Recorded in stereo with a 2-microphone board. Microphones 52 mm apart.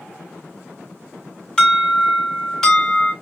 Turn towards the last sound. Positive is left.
turn(degrees=15)  # may be behind; listen again after turning